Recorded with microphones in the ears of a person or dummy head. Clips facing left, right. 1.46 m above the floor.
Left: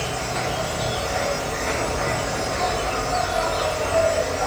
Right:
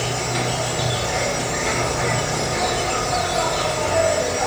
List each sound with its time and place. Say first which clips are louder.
0.0 s an insect: right 2 dB; 40° right (ahead or behind), 2.5 m